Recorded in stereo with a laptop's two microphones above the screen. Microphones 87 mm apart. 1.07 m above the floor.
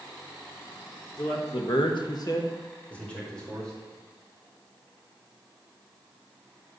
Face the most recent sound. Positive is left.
turn(degrees=5)  # may be behind; listen again after turning